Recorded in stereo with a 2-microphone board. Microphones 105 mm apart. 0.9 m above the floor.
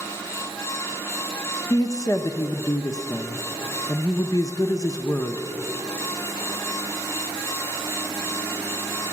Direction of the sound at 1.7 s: 35° left (ahead or behind).